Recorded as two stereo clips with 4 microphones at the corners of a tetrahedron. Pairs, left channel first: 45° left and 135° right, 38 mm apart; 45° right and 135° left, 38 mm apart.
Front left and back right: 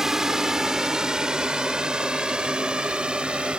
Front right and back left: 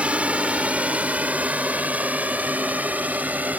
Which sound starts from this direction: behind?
A drone, at 0.0 s.